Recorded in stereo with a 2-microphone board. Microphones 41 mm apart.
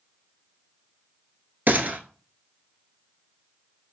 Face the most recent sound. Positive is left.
turn(degrees=-50)  # may be behind; listen again after turning